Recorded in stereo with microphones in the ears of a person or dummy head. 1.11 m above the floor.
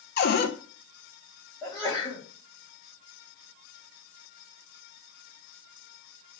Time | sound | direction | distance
0.2 | a cupboard door | 45° left (ahead or behind) | 0.6 m
1.6 | a sneeze | 15° left (ahead or behind) | 1.8 m